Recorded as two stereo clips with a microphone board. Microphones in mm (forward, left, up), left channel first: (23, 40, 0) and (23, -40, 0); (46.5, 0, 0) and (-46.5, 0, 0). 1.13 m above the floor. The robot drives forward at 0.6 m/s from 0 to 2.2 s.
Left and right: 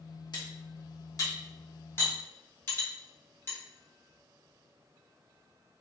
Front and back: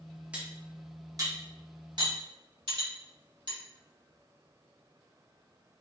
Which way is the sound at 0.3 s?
105° left.